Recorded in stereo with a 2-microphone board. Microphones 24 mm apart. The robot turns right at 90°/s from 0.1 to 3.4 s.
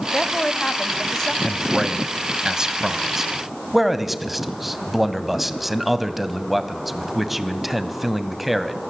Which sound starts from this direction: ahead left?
A woman speaking, at 0.1 s.